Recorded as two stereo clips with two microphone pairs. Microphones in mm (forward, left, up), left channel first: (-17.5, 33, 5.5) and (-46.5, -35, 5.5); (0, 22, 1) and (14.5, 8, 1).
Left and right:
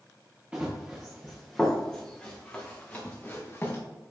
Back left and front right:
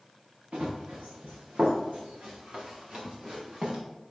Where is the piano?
I don't hear a piano.